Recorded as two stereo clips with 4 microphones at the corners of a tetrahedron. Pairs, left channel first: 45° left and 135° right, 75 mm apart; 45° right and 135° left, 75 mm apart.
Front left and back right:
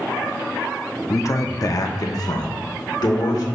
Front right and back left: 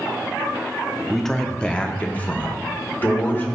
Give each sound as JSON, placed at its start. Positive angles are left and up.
{"t": 1.1, "sound": "a man speaking", "azimuth_deg": 45, "distance_m": 0.6}